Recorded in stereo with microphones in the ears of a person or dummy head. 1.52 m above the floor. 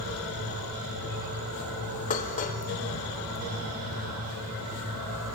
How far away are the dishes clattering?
About 1.6 m.